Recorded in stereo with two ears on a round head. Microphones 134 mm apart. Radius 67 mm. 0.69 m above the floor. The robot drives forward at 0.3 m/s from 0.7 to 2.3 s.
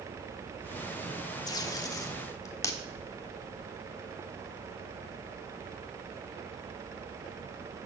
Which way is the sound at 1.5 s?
25° left (ahead or behind).